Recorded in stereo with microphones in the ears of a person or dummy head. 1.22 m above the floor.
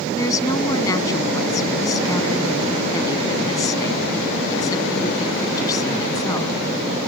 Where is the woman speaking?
25° left (ahead or behind).